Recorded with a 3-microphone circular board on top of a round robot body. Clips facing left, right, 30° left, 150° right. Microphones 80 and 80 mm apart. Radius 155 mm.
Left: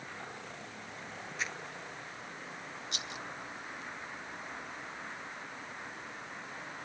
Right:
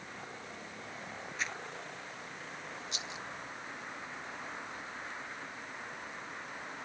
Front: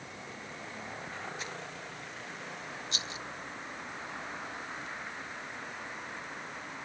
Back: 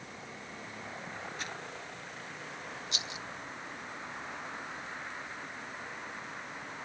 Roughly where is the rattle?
Left.